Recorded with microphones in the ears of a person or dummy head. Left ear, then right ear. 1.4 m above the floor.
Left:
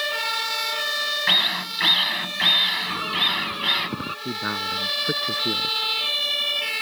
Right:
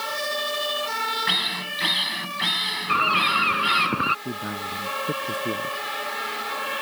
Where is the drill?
10° left (ahead or behind).